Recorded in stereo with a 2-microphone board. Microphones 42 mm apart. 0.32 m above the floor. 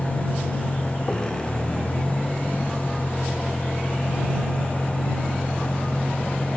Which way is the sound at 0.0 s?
20° left (ahead or behind).